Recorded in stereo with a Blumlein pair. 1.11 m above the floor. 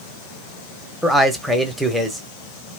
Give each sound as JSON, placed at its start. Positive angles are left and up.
{"t": 1.0, "sound": "a man speaking", "azimuth_deg": 0, "distance_m": 0.9}